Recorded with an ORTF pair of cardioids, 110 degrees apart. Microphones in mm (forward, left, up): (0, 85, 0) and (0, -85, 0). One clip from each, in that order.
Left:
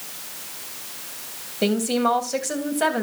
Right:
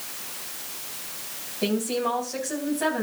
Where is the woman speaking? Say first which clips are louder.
Left 4 dB; 45° left, 3.5 m.